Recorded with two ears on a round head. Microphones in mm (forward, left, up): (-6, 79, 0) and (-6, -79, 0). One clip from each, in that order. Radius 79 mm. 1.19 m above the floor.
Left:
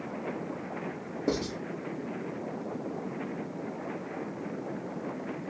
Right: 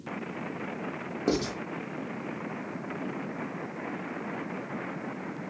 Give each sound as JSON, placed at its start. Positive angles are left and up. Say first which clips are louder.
{"t": 1.3, "sound": "writing", "louder": "right 2 dB", "side_deg": -35, "distance_m": 0.7}